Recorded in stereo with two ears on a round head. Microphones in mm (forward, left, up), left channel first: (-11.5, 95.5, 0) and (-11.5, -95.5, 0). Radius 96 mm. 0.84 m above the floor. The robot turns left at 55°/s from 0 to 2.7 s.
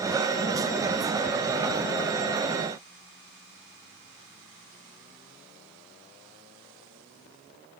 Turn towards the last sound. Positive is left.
No sound to turn to.